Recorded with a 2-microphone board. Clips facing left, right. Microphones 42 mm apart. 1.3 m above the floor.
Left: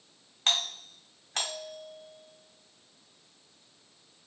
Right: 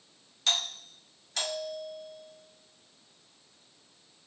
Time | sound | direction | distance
0.5 | a doorbell | 40° left (ahead or behind) | 1.1 m